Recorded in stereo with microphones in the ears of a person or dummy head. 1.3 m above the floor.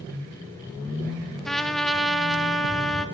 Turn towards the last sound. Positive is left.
turn(degrees=0)  # may be behind; listen again after turning